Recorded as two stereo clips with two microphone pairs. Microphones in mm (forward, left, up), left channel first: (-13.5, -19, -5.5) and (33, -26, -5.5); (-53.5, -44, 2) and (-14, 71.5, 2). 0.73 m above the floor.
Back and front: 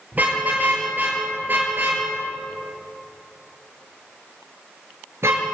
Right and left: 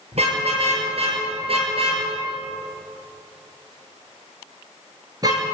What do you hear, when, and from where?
0.1 s a car horn: 45° left, 6.5 m; by 5.5 s 10° left, 5.5 m